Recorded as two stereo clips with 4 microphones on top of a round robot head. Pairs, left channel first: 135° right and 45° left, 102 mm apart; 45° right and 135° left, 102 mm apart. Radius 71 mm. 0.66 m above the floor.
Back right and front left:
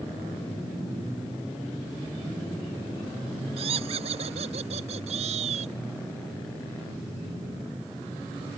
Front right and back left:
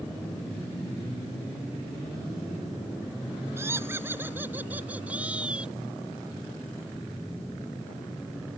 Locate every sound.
3.6 s laughter: 70° left; by 5.8 s 55° left